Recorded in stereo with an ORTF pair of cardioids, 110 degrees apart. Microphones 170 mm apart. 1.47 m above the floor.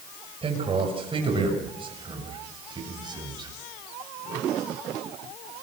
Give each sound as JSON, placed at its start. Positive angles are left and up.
{"t": 0.4, "sound": "a man speaking", "azimuth_deg": -35, "distance_m": 6.5}